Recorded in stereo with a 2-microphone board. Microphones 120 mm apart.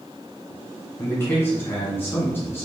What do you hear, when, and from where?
1.0 s a man speaking: 20° left (ahead or behind), 1.6 m